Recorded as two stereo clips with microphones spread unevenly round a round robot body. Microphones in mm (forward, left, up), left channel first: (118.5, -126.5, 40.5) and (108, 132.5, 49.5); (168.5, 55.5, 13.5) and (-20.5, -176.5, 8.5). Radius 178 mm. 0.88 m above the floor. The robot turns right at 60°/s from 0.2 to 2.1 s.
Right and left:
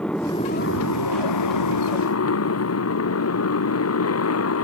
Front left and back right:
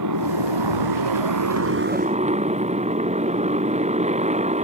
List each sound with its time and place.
0.0 s a motorcycle: 175° right; by 4.6 s 60° right